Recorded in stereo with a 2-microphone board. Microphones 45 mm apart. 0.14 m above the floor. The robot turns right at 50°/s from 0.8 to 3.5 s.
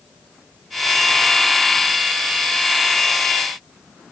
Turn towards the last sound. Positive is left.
No sound to turn to.